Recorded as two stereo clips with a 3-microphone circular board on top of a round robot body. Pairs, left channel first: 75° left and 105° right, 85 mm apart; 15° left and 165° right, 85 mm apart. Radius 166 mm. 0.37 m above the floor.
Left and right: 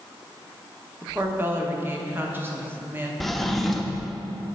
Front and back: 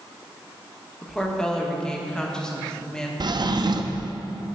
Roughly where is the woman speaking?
Ahead right.